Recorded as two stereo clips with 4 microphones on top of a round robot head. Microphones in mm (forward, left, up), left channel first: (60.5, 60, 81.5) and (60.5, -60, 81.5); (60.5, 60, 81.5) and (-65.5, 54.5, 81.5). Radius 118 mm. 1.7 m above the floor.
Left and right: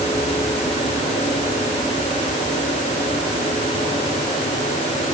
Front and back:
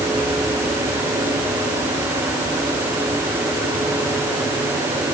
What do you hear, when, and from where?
Only background noise.